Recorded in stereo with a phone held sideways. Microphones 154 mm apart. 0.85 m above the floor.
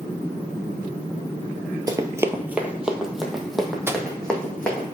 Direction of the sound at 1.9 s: 25° right (ahead or behind).